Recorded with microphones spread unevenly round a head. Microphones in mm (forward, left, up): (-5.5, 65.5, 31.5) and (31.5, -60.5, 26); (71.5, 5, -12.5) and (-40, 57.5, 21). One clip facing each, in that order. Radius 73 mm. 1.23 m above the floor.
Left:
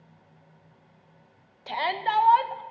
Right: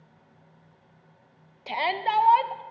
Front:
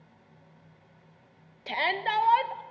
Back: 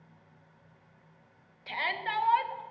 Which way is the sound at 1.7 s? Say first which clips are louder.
Right 1 dB, front 6 dB; 5° left.